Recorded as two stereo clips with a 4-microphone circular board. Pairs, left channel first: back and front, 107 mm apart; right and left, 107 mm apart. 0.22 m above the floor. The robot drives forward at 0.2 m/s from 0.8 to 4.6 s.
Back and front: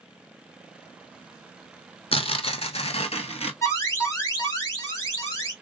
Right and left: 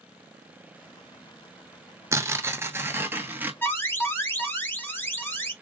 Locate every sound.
2.1 s tearing paper: 155° left, 0.6 m; by 3.5 s 160° left, 0.8 m
3.6 s an alarm: 140° right, 1.9 m; by 5.5 s 150° right, 2.0 m